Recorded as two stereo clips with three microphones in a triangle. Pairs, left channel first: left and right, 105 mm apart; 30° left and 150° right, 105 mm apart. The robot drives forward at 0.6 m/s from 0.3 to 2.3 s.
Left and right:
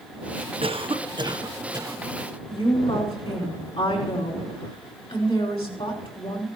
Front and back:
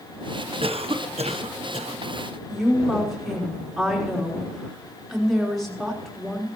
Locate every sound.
0.6 s a cough: 120° right, 0.9 m; by 2.0 s 150° right, 1.5 m
2.5 s a woman speaking: 120° left, 3.5 m